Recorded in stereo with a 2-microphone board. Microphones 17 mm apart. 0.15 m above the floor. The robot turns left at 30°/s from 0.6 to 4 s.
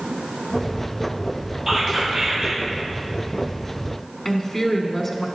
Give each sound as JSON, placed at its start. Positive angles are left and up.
{"t": 1.7, "sound": "whispering", "side_deg": -25, "distance_m": 3.5}
{"t": 4.2, "sound": "a woman speaking", "side_deg": 20, "distance_m": 1.1}